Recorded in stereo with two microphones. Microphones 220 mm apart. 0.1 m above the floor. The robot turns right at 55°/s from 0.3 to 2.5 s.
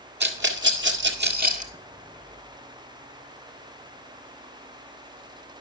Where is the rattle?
50° right (ahead or behind), 1.8 m; by 1.7 s 30° right (ahead or behind), 1.8 m.